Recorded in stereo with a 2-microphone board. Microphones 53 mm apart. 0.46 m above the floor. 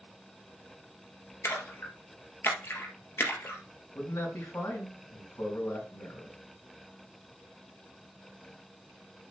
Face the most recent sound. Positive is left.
turn(degrees=70)  # may be behind; listen again after turning